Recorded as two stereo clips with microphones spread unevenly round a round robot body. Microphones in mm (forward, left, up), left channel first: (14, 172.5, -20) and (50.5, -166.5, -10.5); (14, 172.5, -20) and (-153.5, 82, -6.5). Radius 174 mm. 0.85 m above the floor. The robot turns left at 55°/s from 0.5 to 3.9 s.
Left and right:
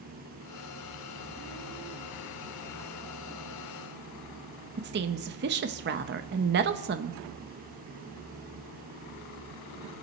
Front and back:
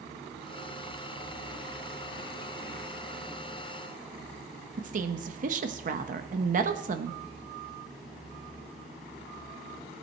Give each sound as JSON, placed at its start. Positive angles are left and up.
{"t": 4.8, "sound": "a woman speaking", "azimuth_deg": -130, "distance_m": 0.7}